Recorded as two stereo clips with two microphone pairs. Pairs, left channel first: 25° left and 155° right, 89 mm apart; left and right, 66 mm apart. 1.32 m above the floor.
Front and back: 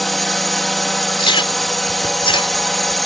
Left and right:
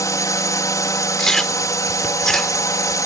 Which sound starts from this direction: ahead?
Chewing, at 1.2 s.